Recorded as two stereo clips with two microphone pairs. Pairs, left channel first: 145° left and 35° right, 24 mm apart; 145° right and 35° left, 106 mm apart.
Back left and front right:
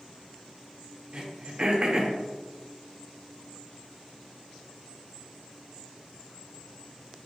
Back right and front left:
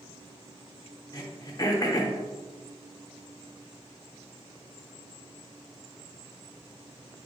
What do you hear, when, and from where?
1.1 s throat clearing: 90° right, 0.7 m